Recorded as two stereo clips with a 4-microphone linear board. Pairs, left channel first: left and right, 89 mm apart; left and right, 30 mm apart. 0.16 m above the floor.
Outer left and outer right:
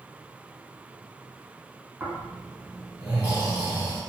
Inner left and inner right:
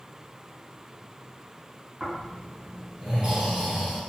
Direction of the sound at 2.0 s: 25° right (ahead or behind).